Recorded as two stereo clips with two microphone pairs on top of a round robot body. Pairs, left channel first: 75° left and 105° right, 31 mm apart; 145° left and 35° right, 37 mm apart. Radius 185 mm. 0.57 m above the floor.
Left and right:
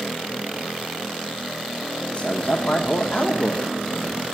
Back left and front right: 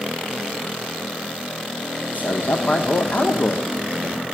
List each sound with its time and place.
2.1 s a man speaking: 115° left, 1.3 m